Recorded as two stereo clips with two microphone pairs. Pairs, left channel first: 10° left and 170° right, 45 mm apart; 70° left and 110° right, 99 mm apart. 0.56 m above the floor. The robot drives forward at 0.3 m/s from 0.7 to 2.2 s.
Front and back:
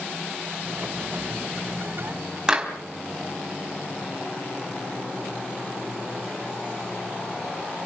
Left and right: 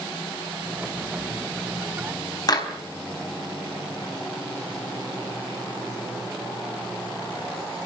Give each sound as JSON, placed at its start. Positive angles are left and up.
{"t": 2.5, "sound": "a clap", "azimuth_deg": 120, "distance_m": 4.0}